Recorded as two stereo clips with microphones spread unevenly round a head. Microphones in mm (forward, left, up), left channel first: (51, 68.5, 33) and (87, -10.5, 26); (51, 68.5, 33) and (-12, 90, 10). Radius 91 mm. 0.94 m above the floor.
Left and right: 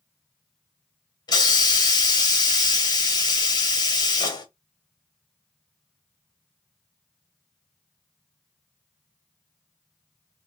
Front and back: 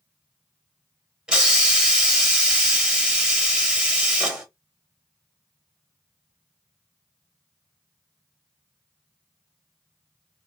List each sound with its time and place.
1.3 s a hiss: 115° left, 1.1 m